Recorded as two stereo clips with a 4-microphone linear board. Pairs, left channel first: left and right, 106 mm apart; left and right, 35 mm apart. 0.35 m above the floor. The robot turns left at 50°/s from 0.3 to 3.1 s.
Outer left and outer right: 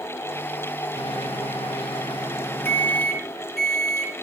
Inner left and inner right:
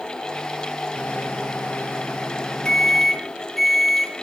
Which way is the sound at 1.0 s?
105° left.